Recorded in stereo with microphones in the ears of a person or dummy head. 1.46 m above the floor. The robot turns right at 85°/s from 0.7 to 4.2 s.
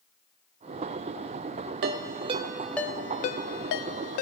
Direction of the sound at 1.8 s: 55° right (ahead or behind).